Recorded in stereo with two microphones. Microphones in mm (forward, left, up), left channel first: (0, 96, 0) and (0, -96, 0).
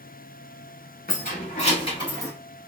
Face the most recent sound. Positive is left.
turn(degrees=20)  # may be behind; listen again after turning